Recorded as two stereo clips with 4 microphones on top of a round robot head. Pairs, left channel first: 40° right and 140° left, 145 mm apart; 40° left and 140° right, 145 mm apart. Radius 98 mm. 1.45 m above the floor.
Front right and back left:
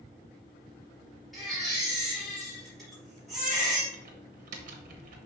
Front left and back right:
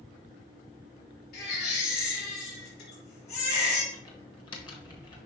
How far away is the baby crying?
About 3.5 m.